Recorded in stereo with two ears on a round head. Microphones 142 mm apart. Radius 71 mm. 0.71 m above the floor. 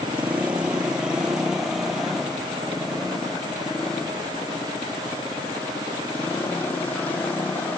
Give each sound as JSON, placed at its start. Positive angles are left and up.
{"t": 0.0, "sound": "a motorcycle", "side_deg": -10}